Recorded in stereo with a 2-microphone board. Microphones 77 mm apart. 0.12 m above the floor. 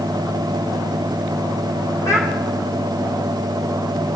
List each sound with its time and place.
2.0 s a child speaking: 40° left (ahead or behind), 3 m